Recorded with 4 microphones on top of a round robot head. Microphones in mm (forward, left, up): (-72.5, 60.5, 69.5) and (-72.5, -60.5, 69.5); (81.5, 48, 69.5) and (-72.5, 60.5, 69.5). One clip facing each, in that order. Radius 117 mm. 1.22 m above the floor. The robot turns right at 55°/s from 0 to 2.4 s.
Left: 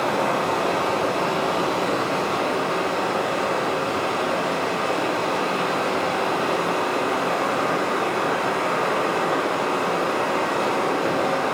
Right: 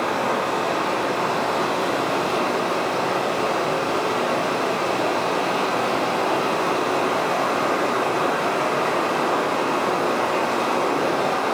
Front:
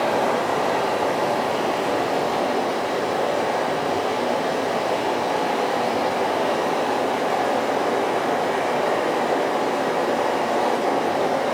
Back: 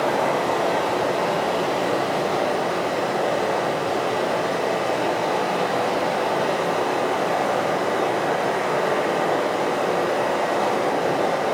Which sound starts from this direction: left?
Running water, at 0.0 s.